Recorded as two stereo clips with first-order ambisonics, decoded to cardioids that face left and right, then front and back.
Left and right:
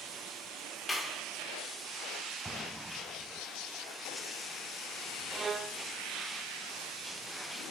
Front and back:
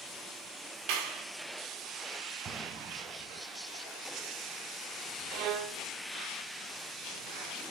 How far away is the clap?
About 2 m.